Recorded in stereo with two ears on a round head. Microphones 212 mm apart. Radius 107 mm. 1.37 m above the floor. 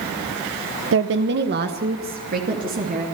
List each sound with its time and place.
0.9 s a woman speaking: 60° right (ahead or behind), 0.9 m; by 3.0 s 40° right (ahead or behind), 3 m